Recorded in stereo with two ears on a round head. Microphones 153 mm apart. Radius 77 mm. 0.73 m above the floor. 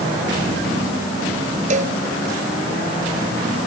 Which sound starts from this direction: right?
A cowbell, at 1.7 s.